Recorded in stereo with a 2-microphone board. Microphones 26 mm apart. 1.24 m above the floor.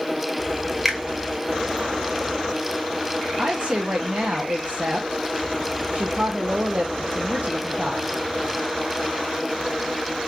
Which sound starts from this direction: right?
A woman speaking, at 3.4 s.